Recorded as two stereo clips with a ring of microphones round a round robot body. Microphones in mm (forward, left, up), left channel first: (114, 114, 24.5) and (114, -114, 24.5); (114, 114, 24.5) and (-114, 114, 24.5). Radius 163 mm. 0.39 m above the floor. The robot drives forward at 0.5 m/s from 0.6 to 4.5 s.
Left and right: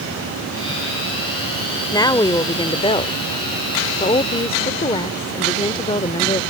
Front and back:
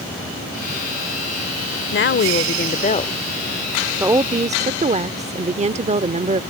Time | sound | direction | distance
1.9 | a woman speaking | 20° left | ?